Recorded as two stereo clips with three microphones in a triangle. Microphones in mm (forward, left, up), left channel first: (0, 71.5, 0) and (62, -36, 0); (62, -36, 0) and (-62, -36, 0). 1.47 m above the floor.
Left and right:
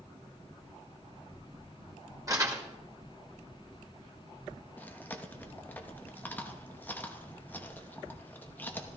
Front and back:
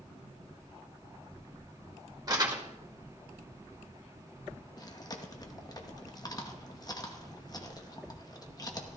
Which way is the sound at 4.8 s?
50° left.